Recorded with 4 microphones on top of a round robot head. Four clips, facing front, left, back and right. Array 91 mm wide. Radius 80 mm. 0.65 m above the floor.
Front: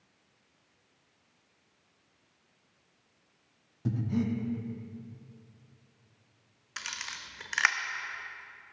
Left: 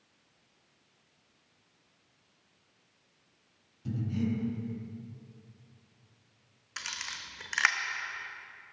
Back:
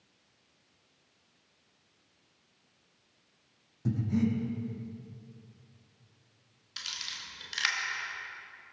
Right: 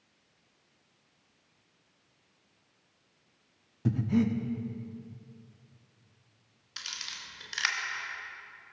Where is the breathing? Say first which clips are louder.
Right 5 dB, back 1 dB; 80° right, 1.0 m.